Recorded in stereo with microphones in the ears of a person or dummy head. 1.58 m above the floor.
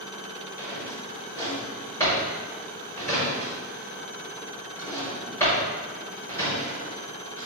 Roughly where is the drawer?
Centre.